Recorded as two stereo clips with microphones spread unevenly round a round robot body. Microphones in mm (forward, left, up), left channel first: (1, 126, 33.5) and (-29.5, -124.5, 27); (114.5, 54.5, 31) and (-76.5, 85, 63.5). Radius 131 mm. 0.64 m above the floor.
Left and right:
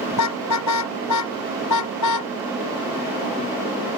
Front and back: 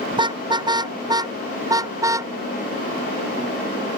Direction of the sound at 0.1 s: 105° left.